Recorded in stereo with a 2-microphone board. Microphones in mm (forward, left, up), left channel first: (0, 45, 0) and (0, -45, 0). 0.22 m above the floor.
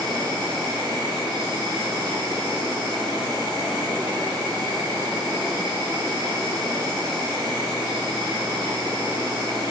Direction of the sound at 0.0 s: 55° right (ahead or behind).